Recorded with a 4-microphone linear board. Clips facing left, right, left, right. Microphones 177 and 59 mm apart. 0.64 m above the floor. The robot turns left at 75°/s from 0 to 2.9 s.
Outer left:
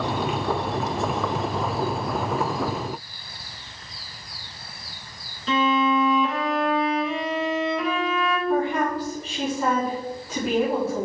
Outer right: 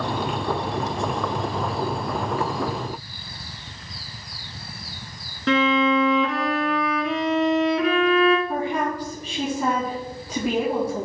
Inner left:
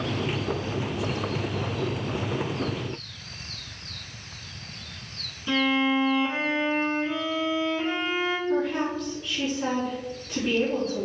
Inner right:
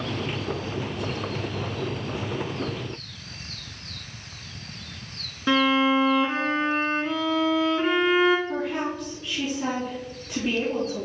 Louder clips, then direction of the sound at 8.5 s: Outer left 2 dB, inner left 2 dB; 15° right (ahead or behind).